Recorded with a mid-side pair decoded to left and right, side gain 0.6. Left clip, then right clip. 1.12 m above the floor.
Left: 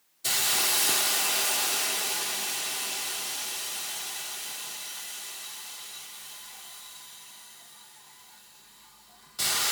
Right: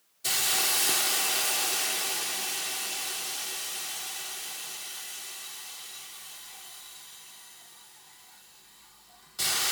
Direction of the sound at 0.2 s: 5° left.